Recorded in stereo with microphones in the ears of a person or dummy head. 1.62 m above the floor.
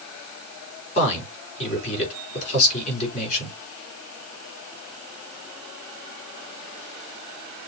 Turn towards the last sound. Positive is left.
turn(degrees=40)  # may be behind; listen again after turning